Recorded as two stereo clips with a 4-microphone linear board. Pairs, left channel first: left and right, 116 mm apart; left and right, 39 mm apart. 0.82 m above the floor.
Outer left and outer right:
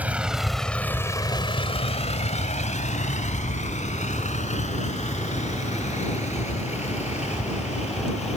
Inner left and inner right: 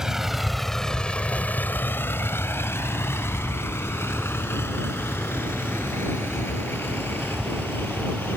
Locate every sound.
0.0 s a vehicle: 10° right (ahead or behind); by 8.4 s 65° left (ahead or behind)